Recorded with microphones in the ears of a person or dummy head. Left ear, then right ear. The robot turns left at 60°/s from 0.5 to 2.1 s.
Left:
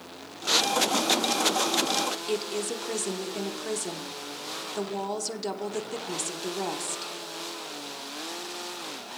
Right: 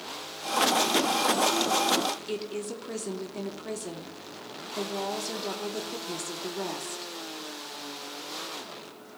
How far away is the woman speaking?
About 0.6 m.